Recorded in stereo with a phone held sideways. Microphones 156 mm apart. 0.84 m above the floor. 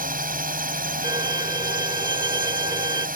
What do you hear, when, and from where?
0.0 s a drone: 75° right (ahead or behind)
1.0 s a violin: 30° right (ahead or behind)